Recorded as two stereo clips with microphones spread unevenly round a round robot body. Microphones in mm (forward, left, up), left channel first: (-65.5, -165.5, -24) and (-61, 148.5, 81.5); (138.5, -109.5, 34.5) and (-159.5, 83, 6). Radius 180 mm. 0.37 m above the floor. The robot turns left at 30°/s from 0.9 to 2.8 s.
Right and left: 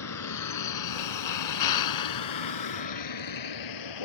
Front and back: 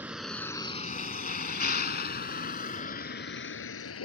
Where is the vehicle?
130° right; by 4.0 s 85° right.